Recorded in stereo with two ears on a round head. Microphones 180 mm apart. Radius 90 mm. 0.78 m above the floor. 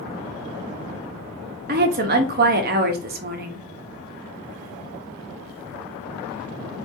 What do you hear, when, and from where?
1.7 s a woman speaking: 45° right (ahead or behind), 0.9 m